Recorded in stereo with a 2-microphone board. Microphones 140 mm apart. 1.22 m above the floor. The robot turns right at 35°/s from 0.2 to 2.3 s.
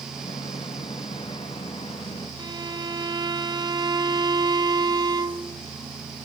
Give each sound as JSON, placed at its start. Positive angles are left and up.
{"t": 2.4, "sound": "a violin", "side_deg": -30, "distance_m": 0.8}